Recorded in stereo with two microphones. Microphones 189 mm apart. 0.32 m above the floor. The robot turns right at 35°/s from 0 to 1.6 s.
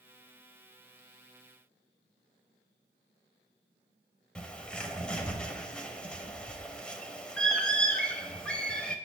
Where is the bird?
5° left (ahead or behind), 0.9 m.